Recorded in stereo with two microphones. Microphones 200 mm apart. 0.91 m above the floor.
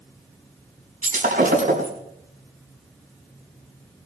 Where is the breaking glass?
45° right (ahead or behind), 5 m.